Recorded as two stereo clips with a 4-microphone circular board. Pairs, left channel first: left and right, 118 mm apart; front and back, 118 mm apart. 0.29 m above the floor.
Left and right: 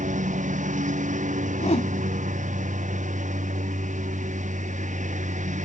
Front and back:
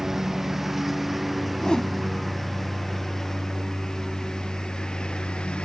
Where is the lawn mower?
90° right; by 5.6 s 80° right.